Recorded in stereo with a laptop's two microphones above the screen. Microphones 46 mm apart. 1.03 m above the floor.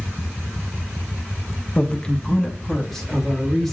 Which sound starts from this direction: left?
A man speaking, at 1.8 s.